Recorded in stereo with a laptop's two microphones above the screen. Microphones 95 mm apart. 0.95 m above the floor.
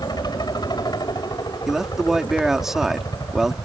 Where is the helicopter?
45° left (ahead or behind).